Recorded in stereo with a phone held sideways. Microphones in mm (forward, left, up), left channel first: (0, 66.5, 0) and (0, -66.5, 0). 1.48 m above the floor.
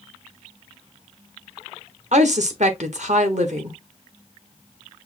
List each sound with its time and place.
2.1 s a woman speaking: 60° right (ahead or behind), 1.2 m